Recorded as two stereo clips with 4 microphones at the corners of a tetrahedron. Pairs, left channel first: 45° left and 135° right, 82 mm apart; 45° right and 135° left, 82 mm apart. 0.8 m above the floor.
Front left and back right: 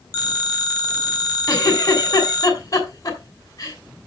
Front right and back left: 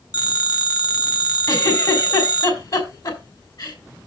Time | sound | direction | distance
0.1 | a phone ringing | 5° right | 2.5 m
1.5 | a giggle | 10° right | 3 m